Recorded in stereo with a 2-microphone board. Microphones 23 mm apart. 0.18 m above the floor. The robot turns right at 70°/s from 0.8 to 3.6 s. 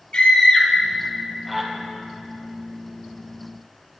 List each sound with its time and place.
0.1 s a scream: 50° left (ahead or behind), 4.5 m; by 1.7 s 10° right (ahead or behind), 4.5 m